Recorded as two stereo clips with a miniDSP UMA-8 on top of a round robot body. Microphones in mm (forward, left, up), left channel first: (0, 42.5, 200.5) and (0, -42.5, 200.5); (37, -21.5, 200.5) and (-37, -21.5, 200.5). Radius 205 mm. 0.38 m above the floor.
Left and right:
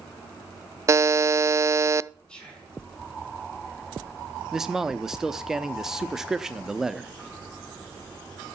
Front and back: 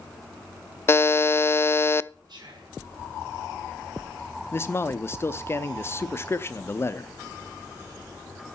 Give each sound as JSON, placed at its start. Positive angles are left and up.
{"t": 0.9, "sound": "a buzzer", "azimuth_deg": -45, "distance_m": 0.6}
{"t": 2.3, "sound": "whispering", "azimuth_deg": 170, "distance_m": 7.0}
{"t": 4.5, "sound": "a man speaking", "azimuth_deg": -10, "distance_m": 1.1}